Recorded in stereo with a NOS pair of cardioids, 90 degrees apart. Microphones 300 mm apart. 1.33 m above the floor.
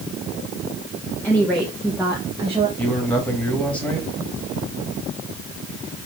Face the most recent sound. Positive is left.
turn(degrees=5)